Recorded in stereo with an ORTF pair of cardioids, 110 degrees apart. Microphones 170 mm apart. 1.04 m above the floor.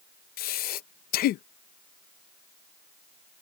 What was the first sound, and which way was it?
Breathing, 65° left.